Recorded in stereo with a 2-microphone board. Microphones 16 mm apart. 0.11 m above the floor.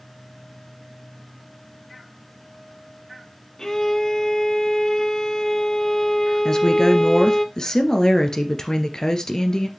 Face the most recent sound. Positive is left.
turn(degrees=40)  # may be behind; listen again after turning